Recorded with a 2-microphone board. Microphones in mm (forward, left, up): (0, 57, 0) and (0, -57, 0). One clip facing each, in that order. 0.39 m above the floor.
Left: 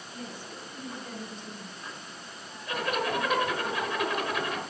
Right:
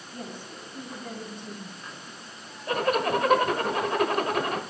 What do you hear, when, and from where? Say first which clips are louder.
0.1 s a woman speaking: right 2 dB; 65° right (ahead or behind), 3.5 m; by 2.1 s 50° right (ahead or behind), 4 m
2.7 s a zipper: right 5 dB; 45° right (ahead or behind), 1.2 m